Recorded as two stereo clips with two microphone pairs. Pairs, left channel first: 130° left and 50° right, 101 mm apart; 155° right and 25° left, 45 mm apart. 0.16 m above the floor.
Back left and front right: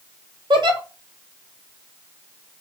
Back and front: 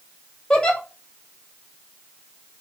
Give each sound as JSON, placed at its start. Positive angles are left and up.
{"t": 0.5, "sound": "a giggle", "azimuth_deg": -85, "distance_m": 0.8}